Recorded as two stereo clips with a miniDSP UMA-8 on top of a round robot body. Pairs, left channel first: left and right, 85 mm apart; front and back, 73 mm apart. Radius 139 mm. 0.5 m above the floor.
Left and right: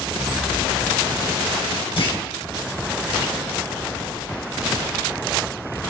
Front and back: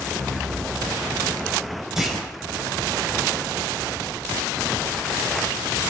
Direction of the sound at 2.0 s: 95° left.